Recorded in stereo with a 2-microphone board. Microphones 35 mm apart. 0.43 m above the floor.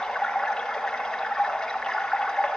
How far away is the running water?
About 1.8 m.